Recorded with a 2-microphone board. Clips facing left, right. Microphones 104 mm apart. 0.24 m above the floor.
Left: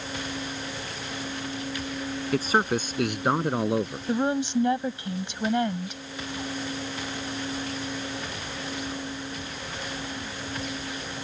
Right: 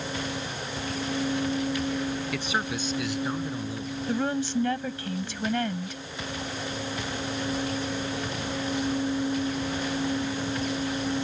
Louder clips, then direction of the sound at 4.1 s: Left 2 dB; 20° left (ahead or behind).